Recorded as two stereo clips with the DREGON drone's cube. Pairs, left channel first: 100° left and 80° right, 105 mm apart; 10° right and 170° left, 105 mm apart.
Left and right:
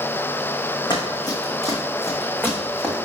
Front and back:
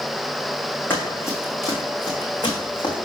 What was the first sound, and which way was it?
Running footsteps, 60° left.